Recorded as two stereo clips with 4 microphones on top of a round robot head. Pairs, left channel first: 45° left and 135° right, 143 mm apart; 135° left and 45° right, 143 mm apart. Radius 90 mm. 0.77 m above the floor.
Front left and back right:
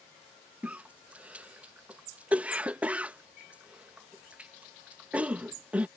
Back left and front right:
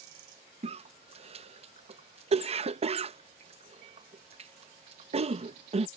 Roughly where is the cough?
Ahead right.